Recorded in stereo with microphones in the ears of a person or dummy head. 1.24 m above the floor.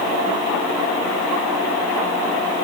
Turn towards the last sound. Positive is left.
No sound to turn to.